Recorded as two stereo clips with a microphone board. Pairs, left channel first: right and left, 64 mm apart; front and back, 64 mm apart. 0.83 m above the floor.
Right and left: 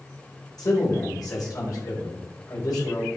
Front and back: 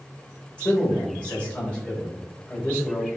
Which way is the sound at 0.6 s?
70° right.